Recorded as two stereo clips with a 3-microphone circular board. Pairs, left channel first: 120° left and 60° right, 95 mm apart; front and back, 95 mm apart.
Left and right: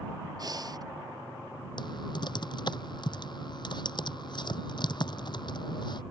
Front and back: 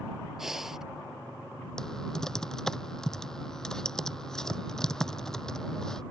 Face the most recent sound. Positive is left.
turn(degrees=85)